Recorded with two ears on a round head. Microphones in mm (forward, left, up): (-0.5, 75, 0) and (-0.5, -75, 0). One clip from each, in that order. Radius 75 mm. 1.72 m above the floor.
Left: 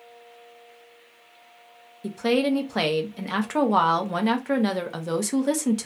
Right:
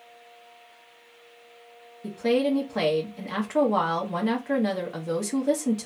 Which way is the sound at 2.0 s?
25° left (ahead or behind).